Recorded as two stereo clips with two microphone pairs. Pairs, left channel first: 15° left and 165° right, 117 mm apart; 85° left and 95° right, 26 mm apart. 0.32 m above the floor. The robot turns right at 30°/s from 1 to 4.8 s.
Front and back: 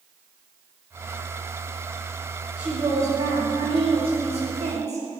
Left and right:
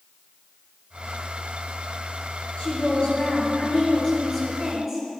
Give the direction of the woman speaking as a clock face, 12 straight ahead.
8 o'clock.